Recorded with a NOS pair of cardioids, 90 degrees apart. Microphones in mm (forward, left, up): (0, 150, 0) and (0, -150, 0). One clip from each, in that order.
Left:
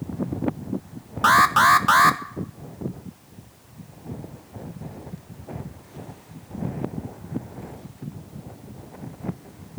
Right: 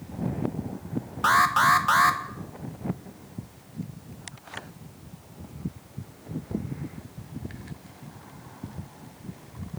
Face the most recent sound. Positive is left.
turn(degrees=20)